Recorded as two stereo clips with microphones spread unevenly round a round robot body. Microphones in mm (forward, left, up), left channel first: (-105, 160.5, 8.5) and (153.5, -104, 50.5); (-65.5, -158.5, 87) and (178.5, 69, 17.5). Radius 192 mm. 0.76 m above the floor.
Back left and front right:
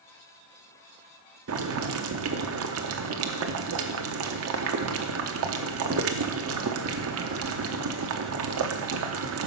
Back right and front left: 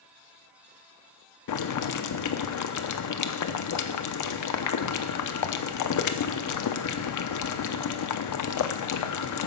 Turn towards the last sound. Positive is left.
turn(degrees=-100)